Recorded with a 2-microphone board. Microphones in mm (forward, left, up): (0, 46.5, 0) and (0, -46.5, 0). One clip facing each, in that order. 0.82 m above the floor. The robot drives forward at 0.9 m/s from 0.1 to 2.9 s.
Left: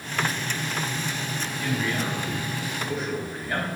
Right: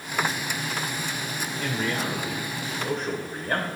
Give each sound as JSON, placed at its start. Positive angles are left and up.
{"t": 1.6, "sound": "a man speaking", "side_deg": -80, "distance_m": 2.5}